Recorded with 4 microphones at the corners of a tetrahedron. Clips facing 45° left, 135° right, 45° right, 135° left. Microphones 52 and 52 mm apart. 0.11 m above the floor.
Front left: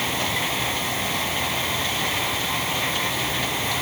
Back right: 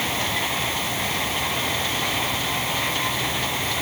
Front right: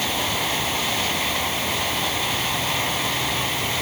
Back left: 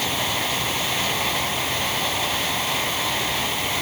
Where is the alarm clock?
No alarm clock in this recording.